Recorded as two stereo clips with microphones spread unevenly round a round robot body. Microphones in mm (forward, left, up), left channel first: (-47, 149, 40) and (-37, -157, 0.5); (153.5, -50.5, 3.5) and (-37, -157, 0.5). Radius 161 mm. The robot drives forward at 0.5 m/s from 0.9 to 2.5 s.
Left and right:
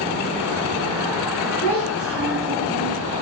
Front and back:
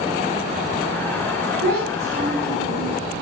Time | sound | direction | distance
1.6 | a child speaking | 125° right | 1.3 m